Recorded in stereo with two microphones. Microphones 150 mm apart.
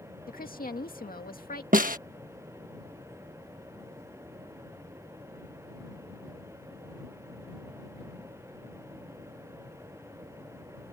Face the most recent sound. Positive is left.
turn(degrees=-65)  # may be behind; listen again after turning